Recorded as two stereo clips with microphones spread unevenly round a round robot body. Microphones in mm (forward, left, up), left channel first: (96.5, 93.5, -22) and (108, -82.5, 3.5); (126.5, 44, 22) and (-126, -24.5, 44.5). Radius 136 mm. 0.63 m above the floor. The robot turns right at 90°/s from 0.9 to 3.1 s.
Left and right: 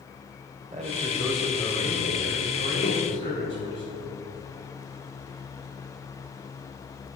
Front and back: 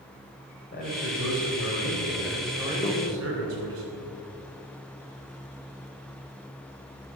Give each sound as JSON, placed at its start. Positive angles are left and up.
{"t": 0.7, "sound": "a man speaking", "azimuth_deg": -35, "distance_m": 3.5}
{"t": 2.8, "sound": "a microwave", "azimuth_deg": 75, "distance_m": 1.0}